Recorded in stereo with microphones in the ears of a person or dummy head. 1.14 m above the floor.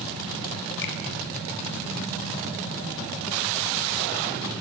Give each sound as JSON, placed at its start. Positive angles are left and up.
{"t": 0.8, "sound": "a finger snap", "side_deg": 65, "distance_m": 5.5}